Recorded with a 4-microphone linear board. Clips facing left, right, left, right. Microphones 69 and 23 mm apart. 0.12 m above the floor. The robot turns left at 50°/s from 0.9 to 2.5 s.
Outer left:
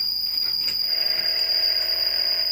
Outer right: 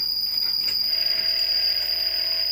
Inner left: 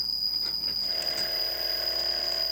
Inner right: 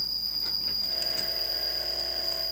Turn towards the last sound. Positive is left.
turn(degrees=165)